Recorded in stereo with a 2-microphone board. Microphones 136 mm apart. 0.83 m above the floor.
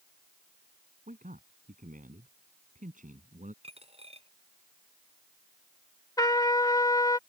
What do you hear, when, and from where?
1.1 s a man speaking: 75° right (ahead or behind); by 3.5 s 70° right (ahead or behind)
3.6 s a dropped coin: 45° right (ahead or behind)
6.2 s a trumpet: 25° left (ahead or behind)